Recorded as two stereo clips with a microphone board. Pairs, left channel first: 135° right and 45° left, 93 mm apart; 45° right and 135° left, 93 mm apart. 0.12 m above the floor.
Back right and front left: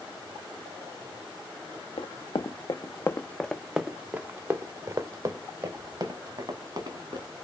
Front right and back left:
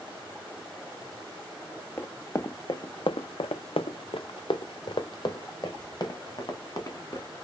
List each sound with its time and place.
2.0 s running footsteps: 115° right, 0.9 m; by 7.3 s 10° left, 2.5 m